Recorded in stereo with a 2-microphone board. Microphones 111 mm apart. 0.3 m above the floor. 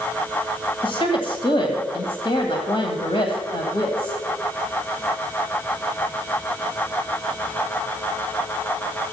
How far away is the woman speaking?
About 1.8 m.